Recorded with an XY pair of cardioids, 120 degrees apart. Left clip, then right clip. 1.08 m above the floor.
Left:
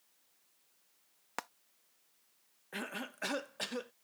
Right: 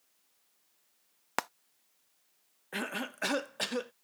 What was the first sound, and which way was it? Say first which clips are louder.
Frying: right 8 dB; 45° right.